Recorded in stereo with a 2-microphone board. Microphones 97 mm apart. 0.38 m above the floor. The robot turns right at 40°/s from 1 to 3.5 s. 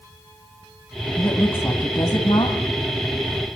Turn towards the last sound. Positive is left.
turn(degrees=105)